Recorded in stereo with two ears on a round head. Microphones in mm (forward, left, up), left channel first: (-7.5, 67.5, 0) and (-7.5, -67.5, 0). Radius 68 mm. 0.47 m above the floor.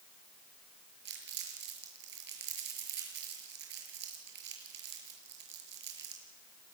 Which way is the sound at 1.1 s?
80° right.